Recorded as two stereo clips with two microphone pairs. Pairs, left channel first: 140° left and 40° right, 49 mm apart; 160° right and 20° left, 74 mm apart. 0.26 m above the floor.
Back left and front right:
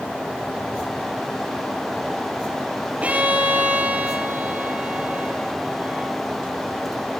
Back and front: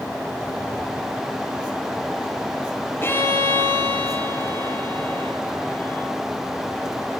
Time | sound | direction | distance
3.0 | a violin | 100° right | 3.5 m